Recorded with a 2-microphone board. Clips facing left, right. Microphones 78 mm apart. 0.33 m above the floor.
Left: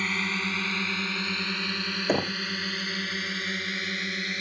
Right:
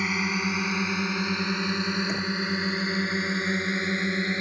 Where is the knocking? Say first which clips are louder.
Left 2 dB; 50° left (ahead or behind).